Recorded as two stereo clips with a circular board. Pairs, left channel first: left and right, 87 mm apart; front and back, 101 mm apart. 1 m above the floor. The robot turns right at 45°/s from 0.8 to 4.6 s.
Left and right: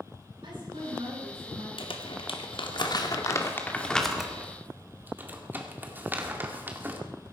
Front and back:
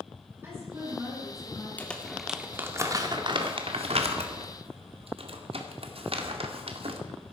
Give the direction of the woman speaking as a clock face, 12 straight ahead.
4 o'clock.